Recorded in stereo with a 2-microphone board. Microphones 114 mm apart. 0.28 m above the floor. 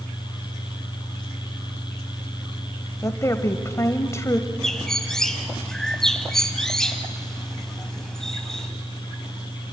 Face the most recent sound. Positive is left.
turn(degrees=5)  # may be behind; listen again after turning